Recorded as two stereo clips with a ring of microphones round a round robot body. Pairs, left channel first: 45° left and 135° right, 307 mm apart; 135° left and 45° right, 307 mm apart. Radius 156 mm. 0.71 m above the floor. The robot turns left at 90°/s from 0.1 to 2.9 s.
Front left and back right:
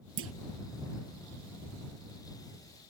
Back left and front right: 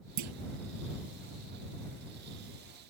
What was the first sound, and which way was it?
A clunk, 80° right.